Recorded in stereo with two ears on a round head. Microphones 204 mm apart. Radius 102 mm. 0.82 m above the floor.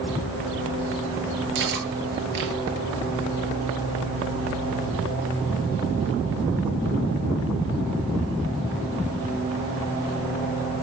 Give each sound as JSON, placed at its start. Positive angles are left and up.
{"t": 1.6, "sound": "cutlery clinking", "side_deg": -50, "distance_m": 9.5}